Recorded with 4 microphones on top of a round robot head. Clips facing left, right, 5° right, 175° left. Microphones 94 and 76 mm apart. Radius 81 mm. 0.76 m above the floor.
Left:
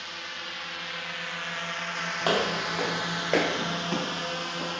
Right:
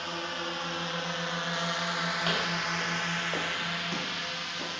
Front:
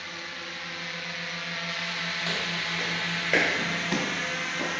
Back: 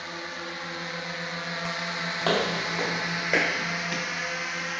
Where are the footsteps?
140° left; by 4.8 s 10° left.